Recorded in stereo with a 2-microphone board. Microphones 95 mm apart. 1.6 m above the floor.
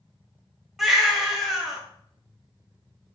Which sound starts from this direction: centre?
A baby crying, at 0.8 s.